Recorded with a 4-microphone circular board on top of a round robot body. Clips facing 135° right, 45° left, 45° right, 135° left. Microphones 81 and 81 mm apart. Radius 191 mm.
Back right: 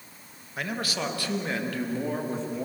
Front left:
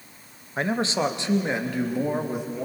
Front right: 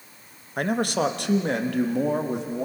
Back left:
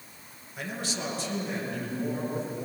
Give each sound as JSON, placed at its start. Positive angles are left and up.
{"t": 0.6, "sound": "a man speaking", "azimuth_deg": -15, "distance_m": 1.7}